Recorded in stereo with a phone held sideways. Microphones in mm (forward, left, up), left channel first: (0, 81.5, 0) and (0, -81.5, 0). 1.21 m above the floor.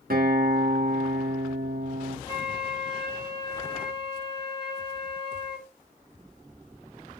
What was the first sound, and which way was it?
A guitar, 75° right (ahead or behind).